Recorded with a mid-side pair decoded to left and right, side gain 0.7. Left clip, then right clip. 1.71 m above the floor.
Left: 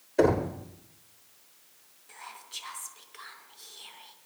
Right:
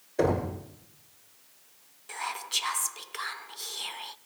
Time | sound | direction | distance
0.2 | knocking | 55° left | 5.5 m
2.1 | whispering | 45° right | 0.5 m